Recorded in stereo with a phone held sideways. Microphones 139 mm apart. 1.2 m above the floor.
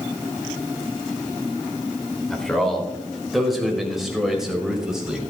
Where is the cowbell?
I don't hear a cowbell.